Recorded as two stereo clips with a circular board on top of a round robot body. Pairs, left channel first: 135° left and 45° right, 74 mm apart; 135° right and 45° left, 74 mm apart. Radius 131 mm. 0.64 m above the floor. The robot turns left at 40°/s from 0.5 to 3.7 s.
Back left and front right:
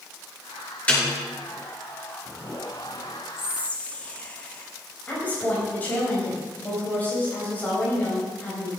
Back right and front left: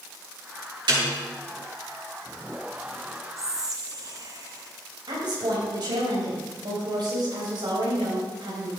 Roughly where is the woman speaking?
Ahead left.